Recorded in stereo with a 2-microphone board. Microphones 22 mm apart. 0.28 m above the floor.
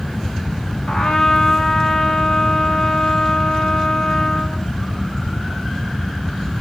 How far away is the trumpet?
About 1.2 m.